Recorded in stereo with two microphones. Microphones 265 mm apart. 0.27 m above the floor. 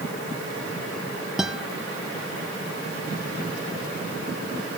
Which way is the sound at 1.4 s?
Centre (ahead or behind).